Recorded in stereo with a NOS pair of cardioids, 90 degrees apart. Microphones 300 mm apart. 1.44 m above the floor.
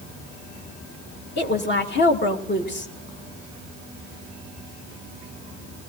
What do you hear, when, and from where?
1.4 s a woman speaking: 40° left, 2.5 m